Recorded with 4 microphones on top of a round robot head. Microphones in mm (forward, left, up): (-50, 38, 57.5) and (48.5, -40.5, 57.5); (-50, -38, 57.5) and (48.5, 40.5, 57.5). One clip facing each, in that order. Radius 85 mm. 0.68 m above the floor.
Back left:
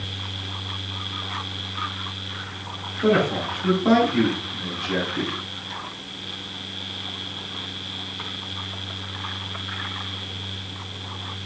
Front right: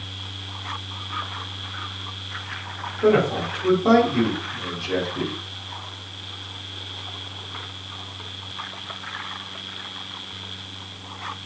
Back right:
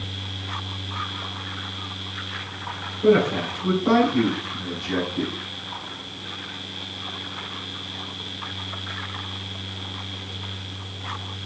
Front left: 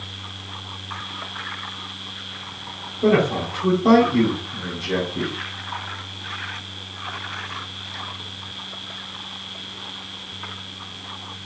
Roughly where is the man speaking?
Ahead left.